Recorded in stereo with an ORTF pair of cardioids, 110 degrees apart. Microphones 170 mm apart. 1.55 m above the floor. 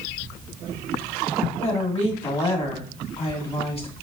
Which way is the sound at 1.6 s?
35° left.